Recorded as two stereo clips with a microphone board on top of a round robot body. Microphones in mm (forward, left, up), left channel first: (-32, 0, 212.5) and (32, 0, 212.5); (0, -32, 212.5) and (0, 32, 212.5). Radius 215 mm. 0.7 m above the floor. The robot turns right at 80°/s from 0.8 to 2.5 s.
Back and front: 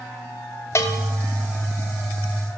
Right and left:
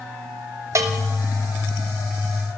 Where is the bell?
130° left, 1.1 m; by 1.1 s 155° left, 1.1 m.